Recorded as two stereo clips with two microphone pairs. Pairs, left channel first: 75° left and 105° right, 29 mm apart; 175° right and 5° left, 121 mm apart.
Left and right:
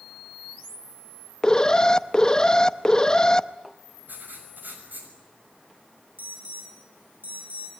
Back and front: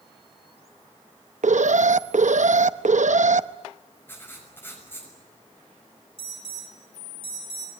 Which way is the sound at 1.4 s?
10° left.